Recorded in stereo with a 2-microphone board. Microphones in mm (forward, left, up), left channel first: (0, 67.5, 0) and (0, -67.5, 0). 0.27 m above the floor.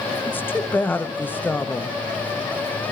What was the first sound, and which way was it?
A woman speaking, 15° left (ahead or behind).